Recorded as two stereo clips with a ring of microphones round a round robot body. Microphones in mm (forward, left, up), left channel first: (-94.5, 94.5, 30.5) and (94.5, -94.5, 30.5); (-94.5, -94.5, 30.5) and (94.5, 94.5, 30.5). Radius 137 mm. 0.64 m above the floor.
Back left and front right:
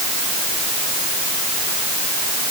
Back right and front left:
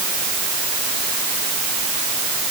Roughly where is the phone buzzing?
I don't hear a phone buzzing.